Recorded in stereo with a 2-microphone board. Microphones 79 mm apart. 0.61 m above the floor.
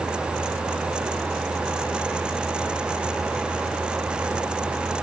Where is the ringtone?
No ringtone in this recording.